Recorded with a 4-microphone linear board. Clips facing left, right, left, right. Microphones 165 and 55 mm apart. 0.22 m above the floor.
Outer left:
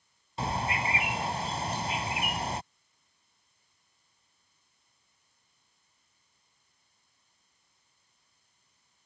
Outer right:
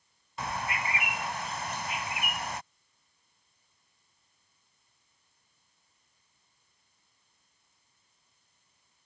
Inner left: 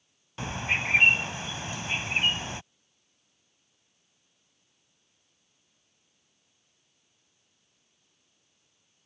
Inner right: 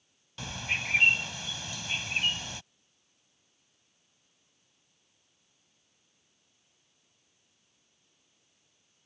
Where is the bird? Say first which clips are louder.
Outer left 3 dB, inner left 4 dB; 30° left (ahead or behind).